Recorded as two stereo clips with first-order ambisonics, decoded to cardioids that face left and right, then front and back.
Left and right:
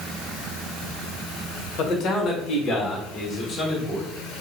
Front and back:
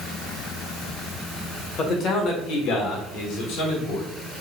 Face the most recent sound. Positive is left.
turn(degrees=10)